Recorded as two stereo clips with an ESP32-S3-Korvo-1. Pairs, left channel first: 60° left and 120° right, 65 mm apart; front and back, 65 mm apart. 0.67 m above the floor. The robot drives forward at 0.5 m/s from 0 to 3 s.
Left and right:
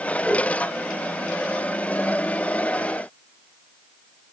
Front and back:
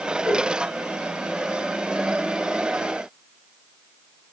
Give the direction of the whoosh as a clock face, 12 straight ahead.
1 o'clock.